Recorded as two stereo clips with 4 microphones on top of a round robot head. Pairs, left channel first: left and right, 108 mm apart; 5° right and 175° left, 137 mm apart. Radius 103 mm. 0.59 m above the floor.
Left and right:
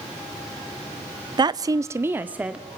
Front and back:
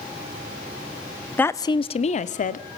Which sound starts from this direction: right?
A woman speaking, at 1.4 s.